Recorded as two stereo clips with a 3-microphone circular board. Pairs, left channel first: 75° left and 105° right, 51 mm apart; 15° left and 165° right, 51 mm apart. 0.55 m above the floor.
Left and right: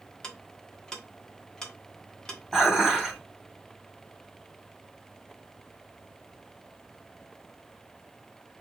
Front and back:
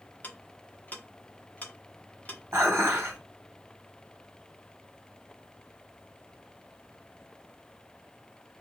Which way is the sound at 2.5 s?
160° left.